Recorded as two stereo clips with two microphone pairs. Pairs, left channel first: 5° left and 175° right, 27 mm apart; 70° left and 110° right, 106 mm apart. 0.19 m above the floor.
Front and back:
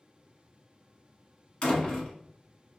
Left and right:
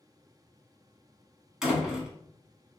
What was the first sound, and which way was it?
A door slam, 25° right.